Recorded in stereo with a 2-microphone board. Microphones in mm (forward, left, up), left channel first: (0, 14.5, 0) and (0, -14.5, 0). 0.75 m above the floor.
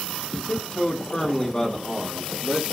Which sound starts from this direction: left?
A man speaking, at 0.3 s.